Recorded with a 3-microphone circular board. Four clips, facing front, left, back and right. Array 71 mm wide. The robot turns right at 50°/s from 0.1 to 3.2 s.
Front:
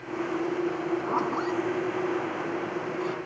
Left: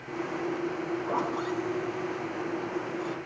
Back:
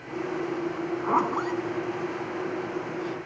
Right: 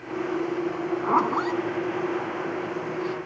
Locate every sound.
0.7 s a zipper: 130° right, 1.1 m; by 3.2 s 5° right, 1.1 m